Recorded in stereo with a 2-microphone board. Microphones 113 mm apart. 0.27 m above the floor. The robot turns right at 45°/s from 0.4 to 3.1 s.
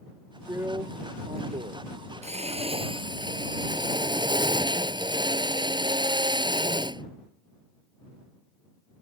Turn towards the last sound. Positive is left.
turn(degrees=-40)